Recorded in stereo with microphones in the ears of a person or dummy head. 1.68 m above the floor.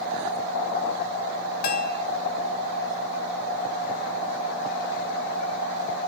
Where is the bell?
60° left (ahead or behind), 0.9 m.